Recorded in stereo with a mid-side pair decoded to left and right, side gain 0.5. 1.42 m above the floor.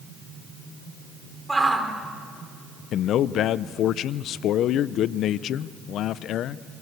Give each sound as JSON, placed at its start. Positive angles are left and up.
{"t": 1.5, "sound": "a shout", "azimuth_deg": -10, "distance_m": 4.5}
{"t": 2.9, "sound": "a man speaking", "azimuth_deg": 65, "distance_m": 0.7}